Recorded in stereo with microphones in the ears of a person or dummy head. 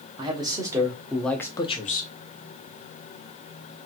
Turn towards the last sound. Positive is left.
turn(degrees=55)  # may be behind; listen again after turning